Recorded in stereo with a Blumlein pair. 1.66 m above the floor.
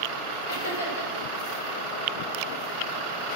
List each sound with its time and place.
0.5 s laughter: 55° left, 2.5 m